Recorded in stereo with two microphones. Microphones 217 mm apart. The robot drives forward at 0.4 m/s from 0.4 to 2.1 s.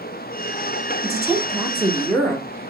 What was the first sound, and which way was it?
A woman speaking, 15° left (ahead or behind).